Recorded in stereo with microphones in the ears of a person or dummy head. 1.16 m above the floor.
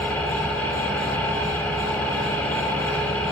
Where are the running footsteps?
I don't hear running footsteps.